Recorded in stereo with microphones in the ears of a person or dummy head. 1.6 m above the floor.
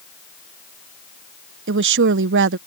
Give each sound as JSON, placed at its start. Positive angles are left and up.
{"t": 1.7, "sound": "a woman speaking", "side_deg": -60}